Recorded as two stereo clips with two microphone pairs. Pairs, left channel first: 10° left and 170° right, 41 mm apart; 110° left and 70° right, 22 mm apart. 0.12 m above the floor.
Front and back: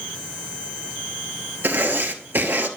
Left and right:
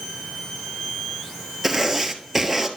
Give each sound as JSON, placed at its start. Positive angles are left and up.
{"t": 1.6, "sound": "writing", "azimuth_deg": -155, "distance_m": 0.8}